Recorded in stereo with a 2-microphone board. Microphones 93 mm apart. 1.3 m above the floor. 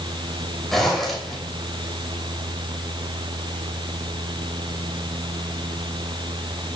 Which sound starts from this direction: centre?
A zipper, at 0.7 s.